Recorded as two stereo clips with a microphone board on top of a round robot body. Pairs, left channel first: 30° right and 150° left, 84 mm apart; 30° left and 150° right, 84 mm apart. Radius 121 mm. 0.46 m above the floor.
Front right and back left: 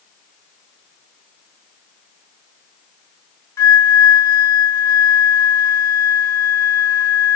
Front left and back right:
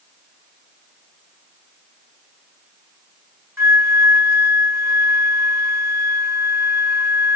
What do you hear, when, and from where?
3.6 s a flute: 90° right, 3 m